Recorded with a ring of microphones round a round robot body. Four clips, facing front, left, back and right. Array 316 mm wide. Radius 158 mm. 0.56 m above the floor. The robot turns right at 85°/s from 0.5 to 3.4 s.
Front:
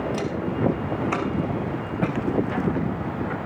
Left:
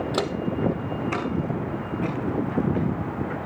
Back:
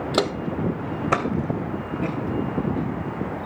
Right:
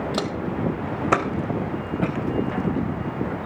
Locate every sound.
0.1 s footsteps: straight behind, 1.4 m; by 3.4 s 85° left, 5.5 m